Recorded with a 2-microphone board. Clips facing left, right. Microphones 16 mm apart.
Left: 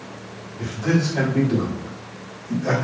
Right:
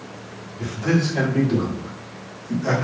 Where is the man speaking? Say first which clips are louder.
Even; 15° right (ahead or behind), 2.0 m; by 2.9 s 35° right (ahead or behind), 1.4 m.